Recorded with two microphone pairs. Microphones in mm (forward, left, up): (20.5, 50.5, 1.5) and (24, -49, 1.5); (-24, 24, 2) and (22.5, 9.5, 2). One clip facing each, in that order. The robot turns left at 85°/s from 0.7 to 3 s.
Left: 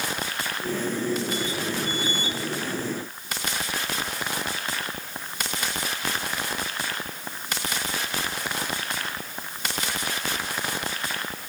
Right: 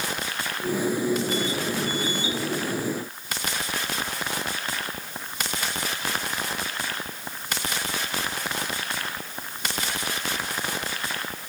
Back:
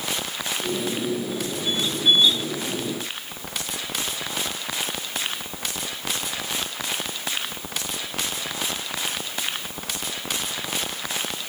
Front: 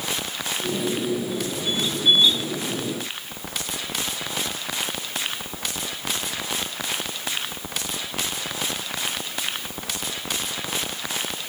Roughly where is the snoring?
I don't hear snoring.